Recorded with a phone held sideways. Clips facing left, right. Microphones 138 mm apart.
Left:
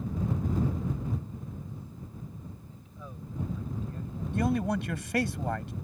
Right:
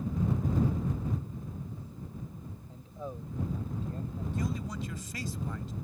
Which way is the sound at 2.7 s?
35° right (ahead or behind).